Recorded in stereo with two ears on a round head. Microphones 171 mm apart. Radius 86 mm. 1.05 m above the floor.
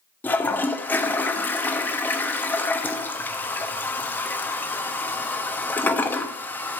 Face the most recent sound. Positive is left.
turn(degrees=10)  # may be behind; listen again after turning